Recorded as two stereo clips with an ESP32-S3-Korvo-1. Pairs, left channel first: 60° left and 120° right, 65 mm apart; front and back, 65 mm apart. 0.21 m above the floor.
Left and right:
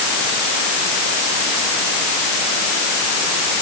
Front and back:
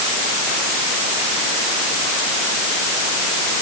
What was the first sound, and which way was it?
Only background noise.